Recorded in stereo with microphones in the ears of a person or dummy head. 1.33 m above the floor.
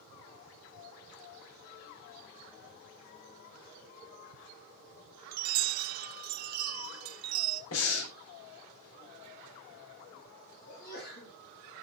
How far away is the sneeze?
About 9 m.